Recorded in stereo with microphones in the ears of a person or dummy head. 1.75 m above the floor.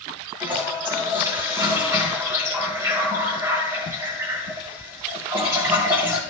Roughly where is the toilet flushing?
Centre.